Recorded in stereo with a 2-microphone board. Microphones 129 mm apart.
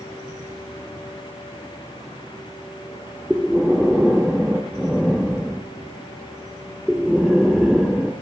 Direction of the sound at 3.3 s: 5° right (ahead or behind).